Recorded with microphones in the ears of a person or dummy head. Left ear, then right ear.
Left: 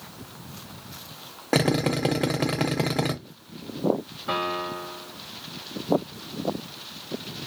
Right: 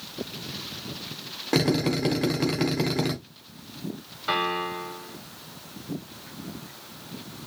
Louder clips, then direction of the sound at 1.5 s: Left 1 dB; 10° left (ahead or behind).